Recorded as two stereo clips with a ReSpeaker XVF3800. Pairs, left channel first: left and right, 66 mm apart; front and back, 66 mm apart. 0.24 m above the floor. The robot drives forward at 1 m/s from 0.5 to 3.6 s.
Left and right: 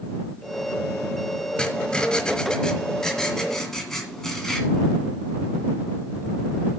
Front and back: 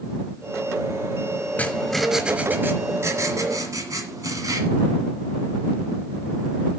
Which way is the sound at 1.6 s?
25° left.